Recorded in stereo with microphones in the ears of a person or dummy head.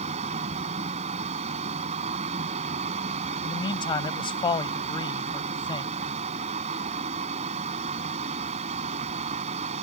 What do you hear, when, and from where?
0.0 s a fan: 40° right (ahead or behind)
3.4 s a man speaking: 30° left (ahead or behind)